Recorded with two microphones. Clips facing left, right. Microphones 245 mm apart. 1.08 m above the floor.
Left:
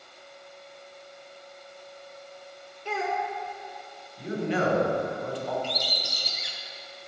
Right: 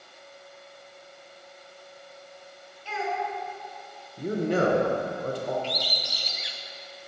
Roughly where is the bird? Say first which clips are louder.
Even; left.